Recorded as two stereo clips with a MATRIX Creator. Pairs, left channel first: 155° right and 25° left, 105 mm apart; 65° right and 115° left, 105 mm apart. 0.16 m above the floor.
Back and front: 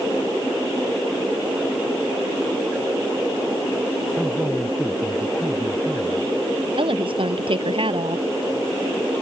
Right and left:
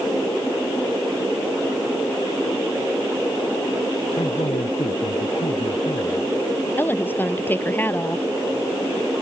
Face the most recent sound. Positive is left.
turn(degrees=0)